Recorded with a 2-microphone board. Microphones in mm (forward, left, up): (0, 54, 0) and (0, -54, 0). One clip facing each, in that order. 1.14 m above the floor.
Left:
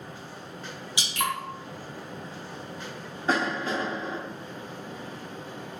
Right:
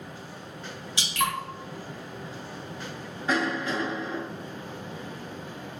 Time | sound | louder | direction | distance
1.0 | dripping | right 1 dB | 15° left (ahead or behind) | 1.8 m
3.3 | a cough | even | 30° left (ahead or behind) | 0.6 m